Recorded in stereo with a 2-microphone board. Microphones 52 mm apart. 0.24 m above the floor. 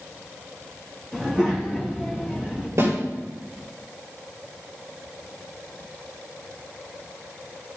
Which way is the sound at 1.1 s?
15° right (ahead or behind).